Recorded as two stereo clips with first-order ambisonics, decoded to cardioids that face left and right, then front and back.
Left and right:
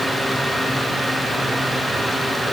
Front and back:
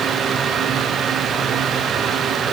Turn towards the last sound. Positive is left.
No sound to turn to.